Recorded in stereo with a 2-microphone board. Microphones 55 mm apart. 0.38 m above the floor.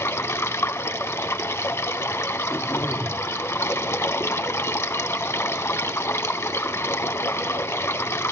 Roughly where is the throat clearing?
Left.